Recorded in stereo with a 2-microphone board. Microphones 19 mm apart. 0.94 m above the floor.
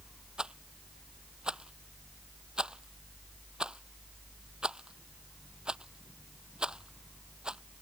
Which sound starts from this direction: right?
A rattle, at 0.4 s.